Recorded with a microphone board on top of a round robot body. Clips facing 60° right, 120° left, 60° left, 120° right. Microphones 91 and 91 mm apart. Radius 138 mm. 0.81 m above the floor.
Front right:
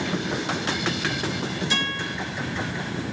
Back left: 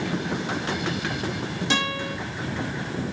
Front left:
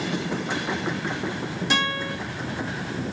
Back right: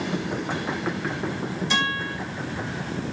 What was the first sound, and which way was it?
A guitar, 90° left.